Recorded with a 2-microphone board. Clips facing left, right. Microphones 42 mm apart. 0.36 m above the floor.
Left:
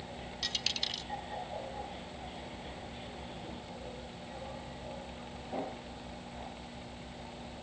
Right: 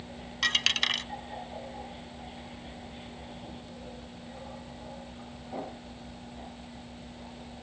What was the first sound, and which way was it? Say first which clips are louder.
A dropped coin: right 11 dB; 65° right (ahead or behind).